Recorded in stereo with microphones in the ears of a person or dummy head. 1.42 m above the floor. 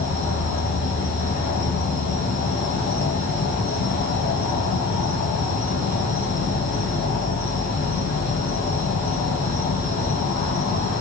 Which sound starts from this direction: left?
An insect, at 0.0 s.